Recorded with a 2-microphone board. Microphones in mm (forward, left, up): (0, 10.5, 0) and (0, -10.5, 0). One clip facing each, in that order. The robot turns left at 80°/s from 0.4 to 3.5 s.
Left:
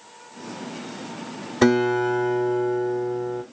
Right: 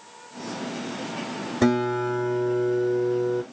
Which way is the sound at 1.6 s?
70° left.